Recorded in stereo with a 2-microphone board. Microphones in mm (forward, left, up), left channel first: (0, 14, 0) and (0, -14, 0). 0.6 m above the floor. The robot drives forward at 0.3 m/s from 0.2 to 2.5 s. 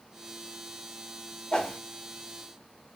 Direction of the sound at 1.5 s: 35° left (ahead or behind).